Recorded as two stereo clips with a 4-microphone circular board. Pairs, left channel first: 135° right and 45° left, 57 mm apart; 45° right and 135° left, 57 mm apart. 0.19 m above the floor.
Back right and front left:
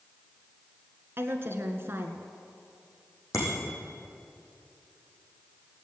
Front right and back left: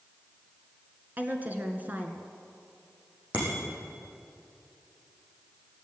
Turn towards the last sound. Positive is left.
turn(degrees=-165)